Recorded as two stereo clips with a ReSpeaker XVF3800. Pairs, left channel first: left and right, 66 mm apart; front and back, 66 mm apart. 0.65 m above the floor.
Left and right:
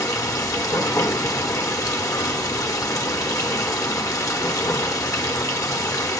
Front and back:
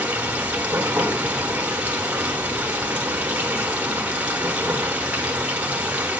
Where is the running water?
115° left, 1.0 m.